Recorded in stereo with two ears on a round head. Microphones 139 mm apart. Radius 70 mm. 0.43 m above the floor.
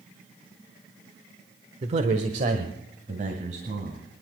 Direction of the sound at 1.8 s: 40° right (ahead or behind).